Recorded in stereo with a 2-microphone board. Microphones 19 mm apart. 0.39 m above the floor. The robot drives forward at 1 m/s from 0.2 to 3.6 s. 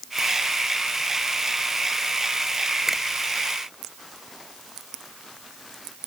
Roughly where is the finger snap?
Centre.